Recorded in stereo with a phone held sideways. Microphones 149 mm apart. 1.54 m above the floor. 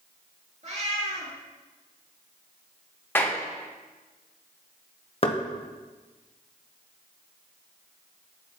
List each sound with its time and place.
0.6 s a cat meowing: 50° right (ahead or behind), 2.5 m
3.1 s a clap: 15° left (ahead or behind), 0.9 m
5.2 s knocking: 40° left (ahead or behind), 0.8 m